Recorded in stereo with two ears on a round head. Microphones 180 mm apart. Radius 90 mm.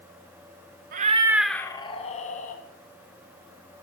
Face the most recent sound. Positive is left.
turn(degrees=40)  # may be behind; listen again after turning